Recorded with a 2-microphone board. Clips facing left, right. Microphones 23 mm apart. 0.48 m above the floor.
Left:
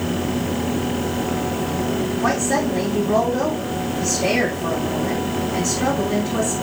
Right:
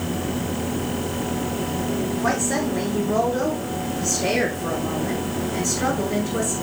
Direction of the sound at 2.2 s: 35° left (ahead or behind).